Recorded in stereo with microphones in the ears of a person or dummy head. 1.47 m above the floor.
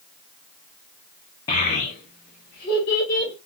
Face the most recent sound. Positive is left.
turn(degrees=60)  # may be behind; listen again after turning